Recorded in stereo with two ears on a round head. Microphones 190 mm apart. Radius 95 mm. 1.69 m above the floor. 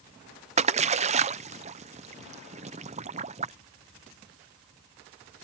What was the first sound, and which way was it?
A splash, 30° right (ahead or behind).